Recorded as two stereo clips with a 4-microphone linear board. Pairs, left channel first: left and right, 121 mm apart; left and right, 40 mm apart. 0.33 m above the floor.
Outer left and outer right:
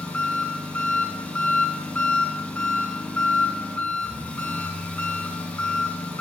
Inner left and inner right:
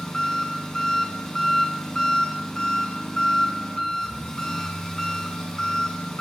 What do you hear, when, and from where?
0.0 s an engine running: 15° left (ahead or behind), 2.5 m